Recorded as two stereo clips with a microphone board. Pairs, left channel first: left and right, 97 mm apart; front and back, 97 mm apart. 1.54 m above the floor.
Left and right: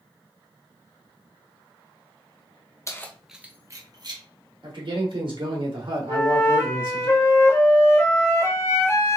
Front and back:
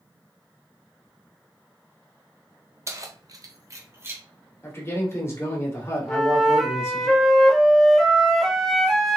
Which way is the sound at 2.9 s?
135° left.